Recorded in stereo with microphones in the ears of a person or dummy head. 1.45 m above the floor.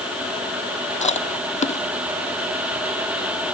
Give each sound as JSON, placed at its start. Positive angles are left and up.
{"t": 1.0, "sound": "chewing", "side_deg": 30}